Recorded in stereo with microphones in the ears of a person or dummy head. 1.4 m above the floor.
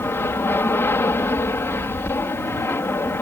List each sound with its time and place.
0.0 s an aircraft: 15° left (ahead or behind)